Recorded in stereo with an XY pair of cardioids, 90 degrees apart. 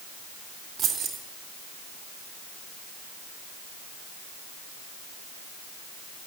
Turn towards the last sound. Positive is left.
turn(degrees=-70)